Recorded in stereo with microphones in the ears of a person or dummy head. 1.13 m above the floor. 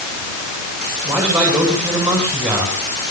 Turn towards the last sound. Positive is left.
turn(degrees=-10)  # may be behind; listen again after turning